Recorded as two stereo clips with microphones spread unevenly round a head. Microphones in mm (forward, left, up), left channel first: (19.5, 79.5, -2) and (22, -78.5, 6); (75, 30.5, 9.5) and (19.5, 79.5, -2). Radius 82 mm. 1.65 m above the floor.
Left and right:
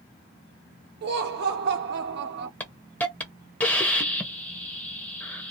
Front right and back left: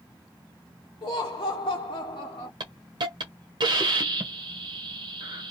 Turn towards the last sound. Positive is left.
turn(degrees=170)